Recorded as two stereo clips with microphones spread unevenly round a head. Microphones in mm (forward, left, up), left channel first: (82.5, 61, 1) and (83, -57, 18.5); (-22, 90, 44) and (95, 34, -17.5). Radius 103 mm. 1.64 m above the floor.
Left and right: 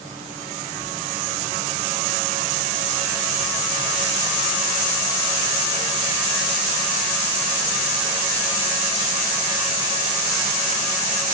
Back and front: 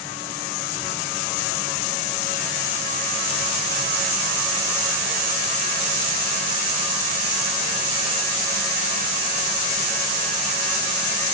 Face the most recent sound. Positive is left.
No sound to turn to.